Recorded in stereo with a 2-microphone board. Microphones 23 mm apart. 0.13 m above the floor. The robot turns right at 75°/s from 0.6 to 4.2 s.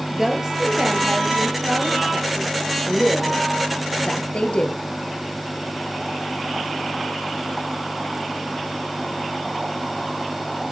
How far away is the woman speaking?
About 2.5 m.